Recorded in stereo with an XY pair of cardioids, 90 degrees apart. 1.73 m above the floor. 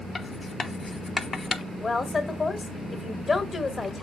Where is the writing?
35° left, 1.0 m.